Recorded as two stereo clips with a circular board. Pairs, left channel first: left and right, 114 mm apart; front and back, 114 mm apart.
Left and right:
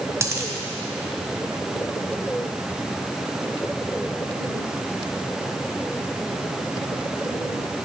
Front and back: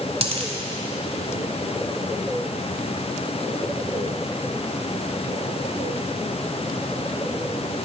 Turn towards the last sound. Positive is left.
turn(degrees=-155)